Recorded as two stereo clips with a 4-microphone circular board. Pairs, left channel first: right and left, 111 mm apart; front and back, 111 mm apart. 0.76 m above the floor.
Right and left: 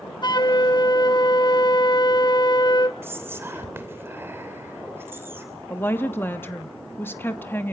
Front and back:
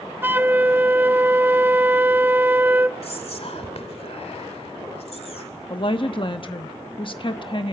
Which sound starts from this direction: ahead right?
A woman speaking, at 5.7 s.